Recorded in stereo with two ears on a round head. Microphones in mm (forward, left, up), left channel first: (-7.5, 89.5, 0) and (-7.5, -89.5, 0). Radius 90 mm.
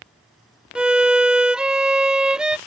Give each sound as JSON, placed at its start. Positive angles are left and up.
{"t": 0.8, "sound": "a violin", "side_deg": -5}